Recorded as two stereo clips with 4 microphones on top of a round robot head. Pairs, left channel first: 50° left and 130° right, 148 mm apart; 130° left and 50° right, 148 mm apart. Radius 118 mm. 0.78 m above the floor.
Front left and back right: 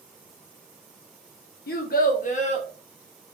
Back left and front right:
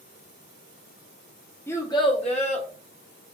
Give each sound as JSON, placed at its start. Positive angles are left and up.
{"t": 1.7, "sound": "a child speaking", "azimuth_deg": 55, "distance_m": 0.9}